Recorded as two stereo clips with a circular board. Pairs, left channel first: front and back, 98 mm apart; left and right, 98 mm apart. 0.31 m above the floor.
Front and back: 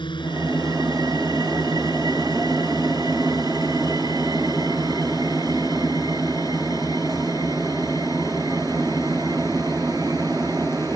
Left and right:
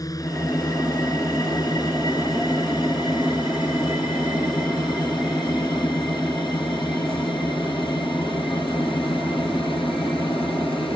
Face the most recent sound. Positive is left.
turn(degrees=60)